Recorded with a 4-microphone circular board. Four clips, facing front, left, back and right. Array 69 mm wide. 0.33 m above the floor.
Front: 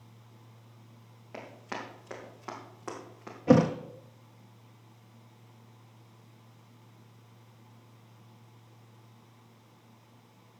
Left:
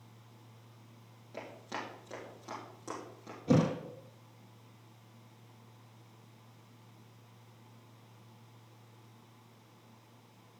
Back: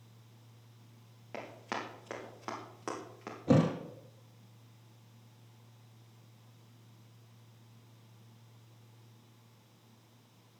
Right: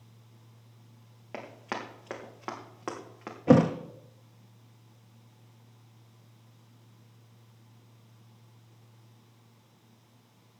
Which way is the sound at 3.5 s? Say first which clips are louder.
Right 8 dB, front 5 dB; 65° right.